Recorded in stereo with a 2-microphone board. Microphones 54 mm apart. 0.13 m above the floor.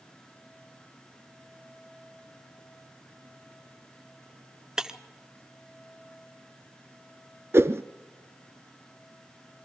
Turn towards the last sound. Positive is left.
turn(degrees=-50)  # may be behind; listen again after turning